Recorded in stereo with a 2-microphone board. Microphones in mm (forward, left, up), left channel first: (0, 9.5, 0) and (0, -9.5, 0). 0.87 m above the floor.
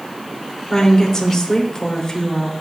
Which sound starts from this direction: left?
A woman speaking, at 0.7 s.